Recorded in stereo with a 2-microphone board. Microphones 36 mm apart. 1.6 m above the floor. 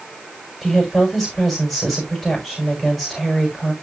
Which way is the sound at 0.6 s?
10° left (ahead or behind).